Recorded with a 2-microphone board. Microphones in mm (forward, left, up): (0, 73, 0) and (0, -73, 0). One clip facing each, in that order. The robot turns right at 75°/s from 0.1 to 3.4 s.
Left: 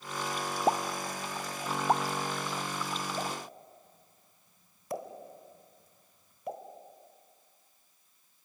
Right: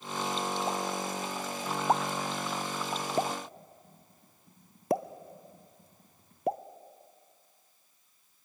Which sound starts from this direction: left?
A pop, at 0.7 s.